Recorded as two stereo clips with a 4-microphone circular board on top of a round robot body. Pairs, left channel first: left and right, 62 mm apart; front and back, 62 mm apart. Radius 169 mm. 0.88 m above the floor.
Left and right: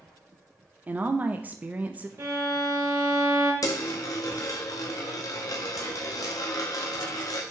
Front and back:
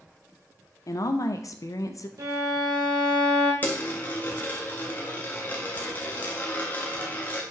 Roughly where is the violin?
Behind right.